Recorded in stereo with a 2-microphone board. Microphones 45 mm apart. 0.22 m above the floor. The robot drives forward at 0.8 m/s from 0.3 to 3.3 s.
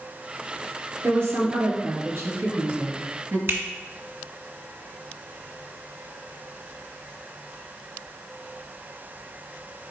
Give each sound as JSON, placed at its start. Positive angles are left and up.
{"t": 1.0, "sound": "a woman speaking", "side_deg": -70, "distance_m": 3.0}
{"t": 3.5, "sound": "a finger snap", "side_deg": -55, "distance_m": 2.0}